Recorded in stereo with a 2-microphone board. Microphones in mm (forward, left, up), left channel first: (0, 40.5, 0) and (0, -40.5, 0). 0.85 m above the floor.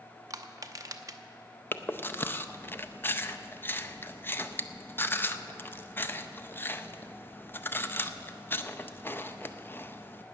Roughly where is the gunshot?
I don't hear a gunshot.